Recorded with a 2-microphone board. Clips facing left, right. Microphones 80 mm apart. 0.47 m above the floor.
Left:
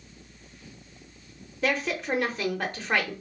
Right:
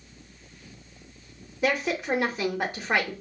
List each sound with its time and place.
1.6 s a woman speaking: 10° right (ahead or behind), 0.8 m